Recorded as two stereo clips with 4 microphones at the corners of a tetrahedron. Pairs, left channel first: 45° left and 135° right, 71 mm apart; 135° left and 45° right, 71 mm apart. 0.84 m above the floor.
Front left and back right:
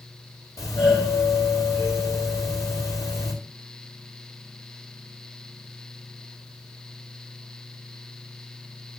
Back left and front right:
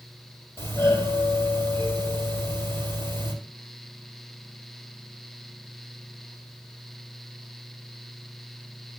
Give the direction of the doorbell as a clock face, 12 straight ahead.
9 o'clock.